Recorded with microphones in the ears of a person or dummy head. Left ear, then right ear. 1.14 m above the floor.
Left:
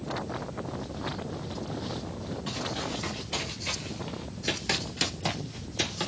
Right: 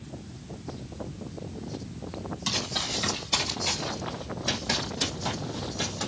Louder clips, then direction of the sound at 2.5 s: Right 5 dB; 35° right (ahead or behind).